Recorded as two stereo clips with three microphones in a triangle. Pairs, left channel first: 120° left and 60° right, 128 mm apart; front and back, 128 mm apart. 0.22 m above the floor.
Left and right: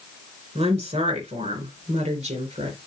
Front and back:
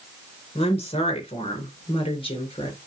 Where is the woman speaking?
35° right, 3.5 m; by 2.8 s 45° right, 4.5 m.